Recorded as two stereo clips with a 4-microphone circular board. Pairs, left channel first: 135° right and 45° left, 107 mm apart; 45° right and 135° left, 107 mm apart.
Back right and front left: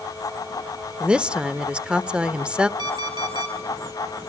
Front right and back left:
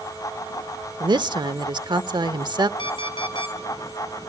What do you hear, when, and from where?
1.0 s a woman speaking: 120° left, 0.9 m
2.8 s an alarm clock: 5° right, 3.5 m